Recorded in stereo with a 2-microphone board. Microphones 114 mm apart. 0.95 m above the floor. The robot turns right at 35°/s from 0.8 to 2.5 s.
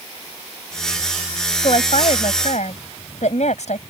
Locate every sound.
1.6 s a woman speaking: 60° left; by 3.8 s 90° left